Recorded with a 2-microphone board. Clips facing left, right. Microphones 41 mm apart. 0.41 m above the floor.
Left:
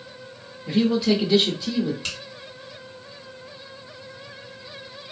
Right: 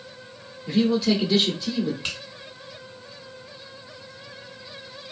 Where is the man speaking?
10° left (ahead or behind), 0.8 m.